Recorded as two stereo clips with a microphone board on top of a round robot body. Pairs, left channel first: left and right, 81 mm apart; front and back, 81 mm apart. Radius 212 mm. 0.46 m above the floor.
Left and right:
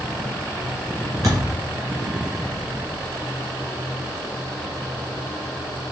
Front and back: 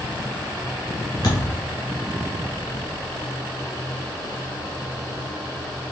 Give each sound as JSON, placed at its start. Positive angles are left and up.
{"t": 1.2, "sound": "a thud", "azimuth_deg": -45, "distance_m": 1.5}